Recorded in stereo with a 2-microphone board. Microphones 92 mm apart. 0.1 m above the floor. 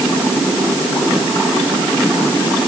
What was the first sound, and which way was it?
Only background noise.